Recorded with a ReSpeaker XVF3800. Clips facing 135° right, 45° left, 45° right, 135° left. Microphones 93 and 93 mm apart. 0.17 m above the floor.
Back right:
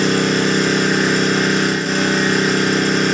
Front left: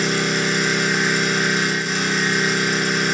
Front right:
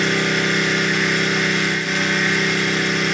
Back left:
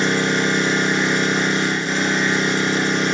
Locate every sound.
0.0 s an engine running: 165° right, 3 m